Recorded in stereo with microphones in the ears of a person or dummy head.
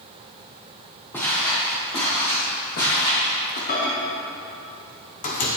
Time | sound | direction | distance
1.1 | footsteps | 15° left (ahead or behind) | 1.9 m
3.7 | a microwave | 45° left (ahead or behind) | 1.0 m